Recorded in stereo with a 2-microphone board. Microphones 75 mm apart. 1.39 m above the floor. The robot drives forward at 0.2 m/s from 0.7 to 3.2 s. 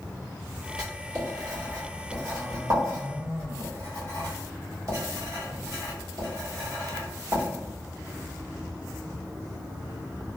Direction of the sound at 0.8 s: 50° right (ahead or behind).